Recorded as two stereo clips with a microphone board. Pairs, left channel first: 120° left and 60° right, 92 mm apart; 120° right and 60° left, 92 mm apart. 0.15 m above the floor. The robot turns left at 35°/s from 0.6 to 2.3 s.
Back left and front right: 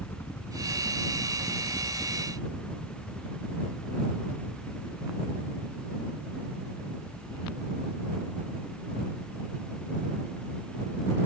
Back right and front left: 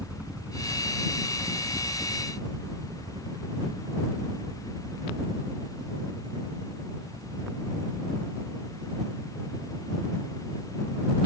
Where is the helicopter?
115° left; by 11.3 s 40° left.